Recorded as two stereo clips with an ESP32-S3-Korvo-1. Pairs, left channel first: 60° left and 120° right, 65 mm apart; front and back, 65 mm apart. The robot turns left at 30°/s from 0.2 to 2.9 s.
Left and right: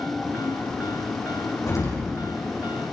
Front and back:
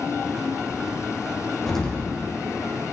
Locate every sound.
1.7 s an explosion: 85° left, 7.5 m; by 2.1 s 75° left, 7.5 m